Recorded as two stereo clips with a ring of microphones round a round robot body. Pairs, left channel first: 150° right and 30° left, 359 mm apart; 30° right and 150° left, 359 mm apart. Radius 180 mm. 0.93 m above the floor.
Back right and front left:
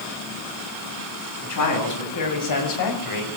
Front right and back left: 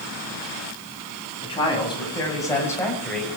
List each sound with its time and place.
1.4 s a man speaking: 105° right, 7.5 m; by 3.4 s 120° right, 5 m